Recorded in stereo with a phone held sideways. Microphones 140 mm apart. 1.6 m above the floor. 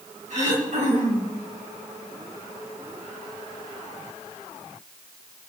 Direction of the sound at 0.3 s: 60° right (ahead or behind).